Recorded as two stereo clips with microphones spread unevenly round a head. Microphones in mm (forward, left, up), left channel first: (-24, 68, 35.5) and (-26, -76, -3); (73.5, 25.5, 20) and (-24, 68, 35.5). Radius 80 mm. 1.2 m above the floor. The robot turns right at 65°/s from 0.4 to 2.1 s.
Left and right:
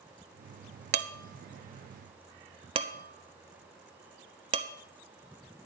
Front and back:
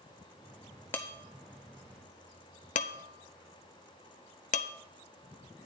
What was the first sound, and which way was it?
Dishes clattering, 105° right.